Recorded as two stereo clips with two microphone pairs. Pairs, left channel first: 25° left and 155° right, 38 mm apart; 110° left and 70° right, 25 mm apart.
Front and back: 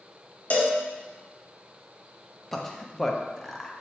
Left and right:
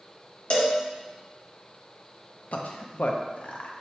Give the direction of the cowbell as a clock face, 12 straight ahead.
10 o'clock.